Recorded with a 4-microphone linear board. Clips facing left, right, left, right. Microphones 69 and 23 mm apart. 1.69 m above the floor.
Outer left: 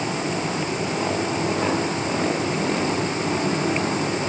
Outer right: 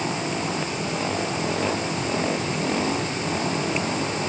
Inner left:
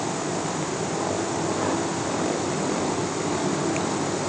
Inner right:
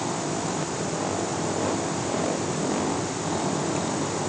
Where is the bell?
No bell in this recording.